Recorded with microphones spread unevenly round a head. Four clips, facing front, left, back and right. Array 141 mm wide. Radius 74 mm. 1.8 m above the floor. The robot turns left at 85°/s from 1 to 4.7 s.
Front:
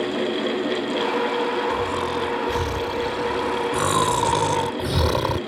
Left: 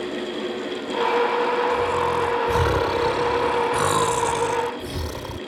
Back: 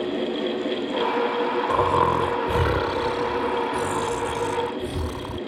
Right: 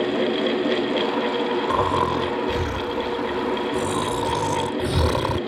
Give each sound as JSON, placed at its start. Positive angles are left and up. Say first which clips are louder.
{"t": 1.7, "sound": "snoring", "louder": "right 1 dB, back 4 dB", "azimuth_deg": -135}